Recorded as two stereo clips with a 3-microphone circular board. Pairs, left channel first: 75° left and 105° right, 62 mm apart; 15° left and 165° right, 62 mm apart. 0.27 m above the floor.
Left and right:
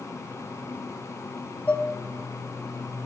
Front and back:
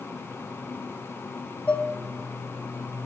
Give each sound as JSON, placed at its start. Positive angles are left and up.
{"t": 1.7, "sound": "dishes clattering", "azimuth_deg": 45, "distance_m": 0.9}